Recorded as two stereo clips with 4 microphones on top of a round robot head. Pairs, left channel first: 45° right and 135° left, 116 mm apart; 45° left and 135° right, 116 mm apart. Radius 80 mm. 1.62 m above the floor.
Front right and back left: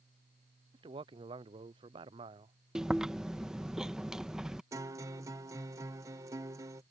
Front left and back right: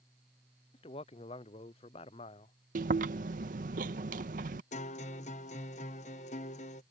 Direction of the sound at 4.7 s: 70° left.